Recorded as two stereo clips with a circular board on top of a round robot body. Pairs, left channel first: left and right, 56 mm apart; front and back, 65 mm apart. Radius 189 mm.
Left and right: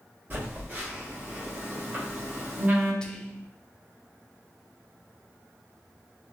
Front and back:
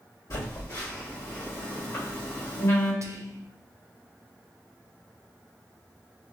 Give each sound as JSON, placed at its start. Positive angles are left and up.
{"t": 0.3, "sound": "a phone buzzing", "azimuth_deg": -35, "distance_m": 1.6}
{"t": 3.0, "sound": "whispering", "azimuth_deg": 160, "distance_m": 0.5}